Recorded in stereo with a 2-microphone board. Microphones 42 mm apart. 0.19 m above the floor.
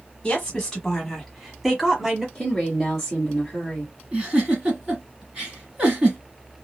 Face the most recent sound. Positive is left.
turn(degrees=-20)  # may be behind; listen again after turning